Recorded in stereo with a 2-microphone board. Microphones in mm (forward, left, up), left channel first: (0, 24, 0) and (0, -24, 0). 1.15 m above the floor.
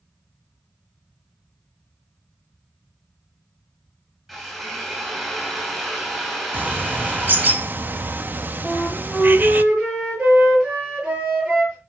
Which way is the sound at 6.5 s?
40° right (ahead or behind).